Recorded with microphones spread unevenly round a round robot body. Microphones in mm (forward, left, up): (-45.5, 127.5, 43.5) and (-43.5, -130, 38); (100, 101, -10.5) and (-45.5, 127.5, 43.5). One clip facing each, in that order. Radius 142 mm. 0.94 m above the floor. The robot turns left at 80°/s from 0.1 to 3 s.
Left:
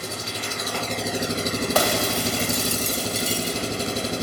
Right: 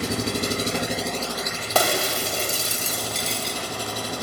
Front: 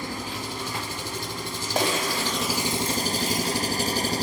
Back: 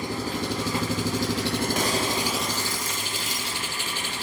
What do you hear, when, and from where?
0.0 s an engine running: 105° right, 1.2 m; by 4.2 s 25° left, 1.2 m
1.8 s breaking glass: 85° right, 3 m; by 3.6 s 175° left, 3 m